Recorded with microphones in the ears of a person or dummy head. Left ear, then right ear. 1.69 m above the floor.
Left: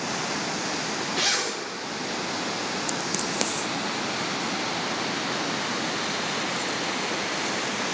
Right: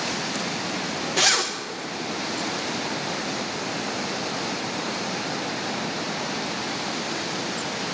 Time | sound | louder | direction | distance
1.2 | a zipper | right 5 dB | 35° right (ahead or behind) | 1.2 m